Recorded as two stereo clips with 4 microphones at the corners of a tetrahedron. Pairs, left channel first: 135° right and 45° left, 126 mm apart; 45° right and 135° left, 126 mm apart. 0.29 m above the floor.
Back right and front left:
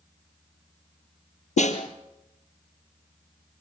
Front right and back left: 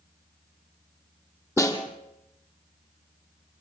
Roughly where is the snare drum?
Right.